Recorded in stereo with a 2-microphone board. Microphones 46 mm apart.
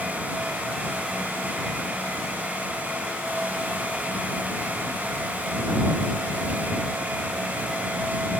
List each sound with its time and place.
Only background noise.